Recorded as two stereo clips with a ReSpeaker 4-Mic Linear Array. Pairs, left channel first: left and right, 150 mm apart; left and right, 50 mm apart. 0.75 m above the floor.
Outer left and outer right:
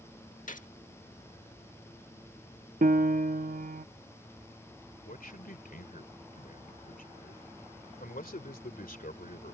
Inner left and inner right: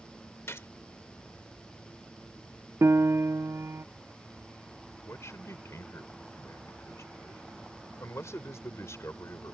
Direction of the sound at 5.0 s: 75° left (ahead or behind).